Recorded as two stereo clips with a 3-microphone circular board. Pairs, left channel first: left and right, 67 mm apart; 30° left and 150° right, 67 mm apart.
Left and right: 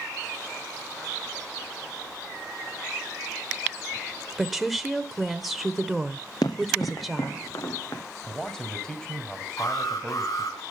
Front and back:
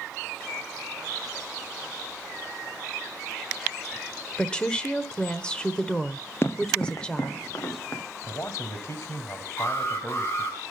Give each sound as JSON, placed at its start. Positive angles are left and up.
{"t": 4.4, "sound": "a woman speaking", "azimuth_deg": -10, "distance_m": 1.1}
{"t": 6.4, "sound": "running footsteps", "azimuth_deg": 80, "distance_m": 1.1}
{"t": 8.2, "sound": "a man speaking", "azimuth_deg": 10, "distance_m": 1.9}
{"t": 9.6, "sound": "an alarm", "azimuth_deg": 75, "distance_m": 4.0}